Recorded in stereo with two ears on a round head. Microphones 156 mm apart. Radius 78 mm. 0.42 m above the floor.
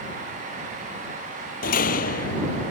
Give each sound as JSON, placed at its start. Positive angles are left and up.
{"t": 1.6, "sound": "a door slam", "side_deg": 50}